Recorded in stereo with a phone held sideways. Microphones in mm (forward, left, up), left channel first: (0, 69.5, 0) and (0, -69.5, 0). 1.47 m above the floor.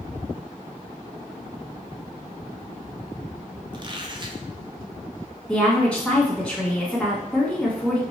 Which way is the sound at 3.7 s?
30° right (ahead or behind).